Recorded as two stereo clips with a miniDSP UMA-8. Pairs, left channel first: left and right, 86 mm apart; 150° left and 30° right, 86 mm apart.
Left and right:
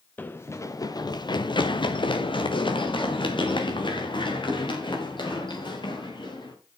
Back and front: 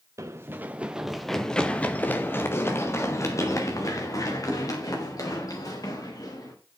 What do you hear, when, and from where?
0.2 s running footsteps: 20° left, 1.2 m; by 6.5 s 115° left, 5 m